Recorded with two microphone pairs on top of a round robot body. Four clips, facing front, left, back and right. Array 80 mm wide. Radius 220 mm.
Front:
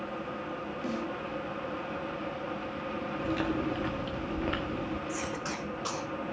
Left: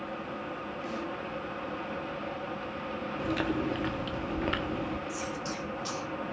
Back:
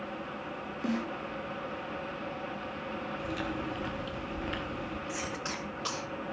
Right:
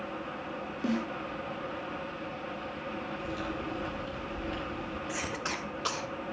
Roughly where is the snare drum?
Behind right.